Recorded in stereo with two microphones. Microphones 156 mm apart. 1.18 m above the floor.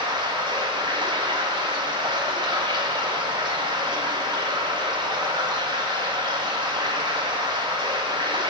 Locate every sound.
0.0 s running water: 30° right (ahead or behind), 2 m